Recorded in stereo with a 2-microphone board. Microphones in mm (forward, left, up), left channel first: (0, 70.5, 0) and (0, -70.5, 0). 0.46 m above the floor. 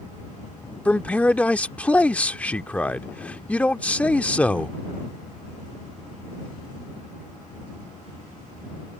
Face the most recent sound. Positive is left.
turn(degrees=10)  # may be behind; listen again after turning